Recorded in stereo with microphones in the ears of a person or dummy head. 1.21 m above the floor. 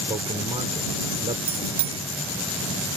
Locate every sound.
0.1 s a man speaking: 35° right (ahead or behind)
1.5 s a bicycle bell: 30° right (ahead or behind)